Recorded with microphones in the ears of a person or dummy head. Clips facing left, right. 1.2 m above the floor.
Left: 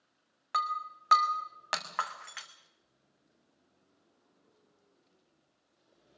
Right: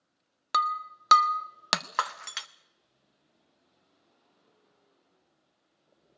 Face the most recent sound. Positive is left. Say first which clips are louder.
# right 5 dB
turn(degrees=-50)  # may be behind; listen again after turning